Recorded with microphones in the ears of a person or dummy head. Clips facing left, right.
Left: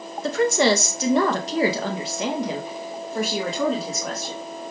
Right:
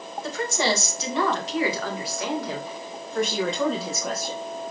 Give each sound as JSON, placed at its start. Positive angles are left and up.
{"t": 0.2, "sound": "a woman speaking", "side_deg": 65, "distance_m": 2.0}